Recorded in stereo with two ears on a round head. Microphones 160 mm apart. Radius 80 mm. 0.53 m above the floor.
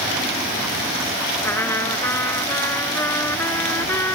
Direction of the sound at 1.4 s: 15° left (ahead or behind).